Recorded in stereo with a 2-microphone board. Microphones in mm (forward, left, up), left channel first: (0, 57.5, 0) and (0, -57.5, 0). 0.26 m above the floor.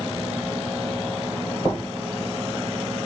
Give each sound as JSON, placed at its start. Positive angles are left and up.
{"t": 1.6, "sound": "knocking", "side_deg": 20, "distance_m": 3.5}